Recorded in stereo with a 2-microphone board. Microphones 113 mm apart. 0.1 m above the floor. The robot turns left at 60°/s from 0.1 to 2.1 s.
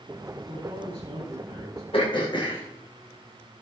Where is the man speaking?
95° right, 7.5 m; by 1.8 s straight behind, 7.5 m.